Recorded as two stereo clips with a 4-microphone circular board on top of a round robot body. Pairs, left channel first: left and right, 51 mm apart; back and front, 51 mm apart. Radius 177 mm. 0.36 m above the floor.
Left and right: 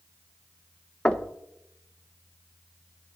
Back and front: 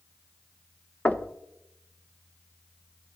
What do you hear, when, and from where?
1.1 s knocking: 140° left, 1.1 m